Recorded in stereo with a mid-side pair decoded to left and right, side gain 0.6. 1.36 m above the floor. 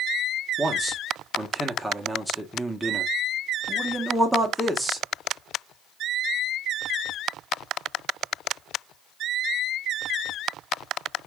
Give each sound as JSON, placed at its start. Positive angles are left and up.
{"t": 0.6, "sound": "a man speaking", "azimuth_deg": -5, "distance_m": 1.0}